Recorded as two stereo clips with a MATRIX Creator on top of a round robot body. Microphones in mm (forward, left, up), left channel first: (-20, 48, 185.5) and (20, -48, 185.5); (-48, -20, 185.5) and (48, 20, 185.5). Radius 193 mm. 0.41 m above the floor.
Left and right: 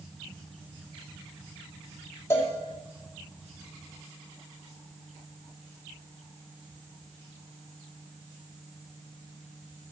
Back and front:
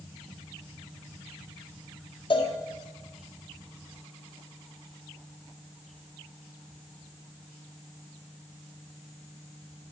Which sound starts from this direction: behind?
A cowbell, at 2.3 s.